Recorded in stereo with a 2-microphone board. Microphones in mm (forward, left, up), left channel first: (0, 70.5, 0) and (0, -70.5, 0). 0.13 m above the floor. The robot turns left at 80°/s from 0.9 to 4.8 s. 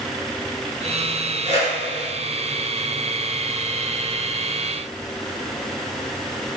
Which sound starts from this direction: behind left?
A whoosh, at 1.4 s.